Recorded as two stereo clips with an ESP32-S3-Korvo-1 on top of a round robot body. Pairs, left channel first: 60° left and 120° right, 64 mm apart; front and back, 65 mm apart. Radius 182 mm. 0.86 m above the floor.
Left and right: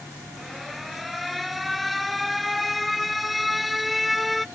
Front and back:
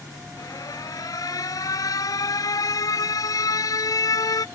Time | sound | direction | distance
0.4 | an alarm | 30° right | ?